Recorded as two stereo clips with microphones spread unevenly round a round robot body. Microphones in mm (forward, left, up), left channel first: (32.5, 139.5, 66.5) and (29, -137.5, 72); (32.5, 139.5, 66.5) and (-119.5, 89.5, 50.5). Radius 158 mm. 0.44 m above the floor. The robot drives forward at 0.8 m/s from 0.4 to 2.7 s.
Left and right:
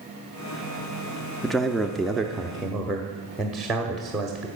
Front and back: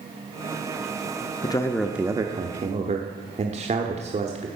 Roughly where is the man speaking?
Ahead.